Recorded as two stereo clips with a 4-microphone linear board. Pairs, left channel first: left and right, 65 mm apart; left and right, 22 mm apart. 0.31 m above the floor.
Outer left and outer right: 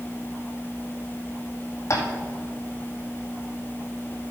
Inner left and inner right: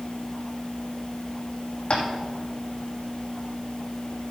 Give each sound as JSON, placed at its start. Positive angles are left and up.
{"t": 1.9, "sound": "tapping", "side_deg": 55, "distance_m": 2.0}